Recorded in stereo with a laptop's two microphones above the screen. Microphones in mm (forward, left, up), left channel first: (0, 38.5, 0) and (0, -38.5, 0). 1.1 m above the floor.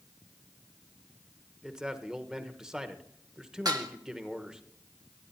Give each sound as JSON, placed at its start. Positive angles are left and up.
{"t": 1.6, "sound": "a man speaking", "side_deg": -10, "distance_m": 1.1}
{"t": 3.6, "sound": "dishes clattering", "side_deg": -55, "distance_m": 1.0}